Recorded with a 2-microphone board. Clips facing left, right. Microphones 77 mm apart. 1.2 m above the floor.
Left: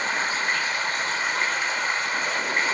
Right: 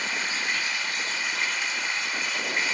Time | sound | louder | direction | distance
0.0 | running water | left 5 dB | 45° left (ahead or behind) | 1.1 m